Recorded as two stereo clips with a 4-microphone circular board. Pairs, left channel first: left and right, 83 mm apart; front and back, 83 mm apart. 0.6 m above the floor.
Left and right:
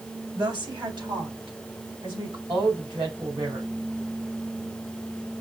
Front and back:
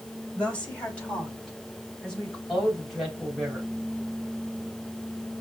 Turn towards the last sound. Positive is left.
turn(degrees=-85)